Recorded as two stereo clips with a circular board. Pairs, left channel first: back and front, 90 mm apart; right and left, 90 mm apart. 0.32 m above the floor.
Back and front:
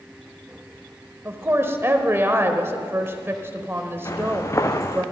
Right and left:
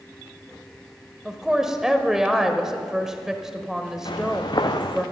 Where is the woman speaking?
10° left, 1.0 m.